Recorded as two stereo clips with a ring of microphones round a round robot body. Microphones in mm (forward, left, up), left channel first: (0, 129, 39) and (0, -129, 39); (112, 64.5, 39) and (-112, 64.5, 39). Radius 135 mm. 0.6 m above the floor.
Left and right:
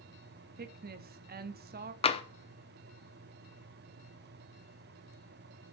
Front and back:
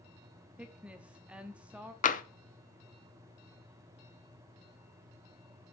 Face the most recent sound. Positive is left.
turn(degrees=35)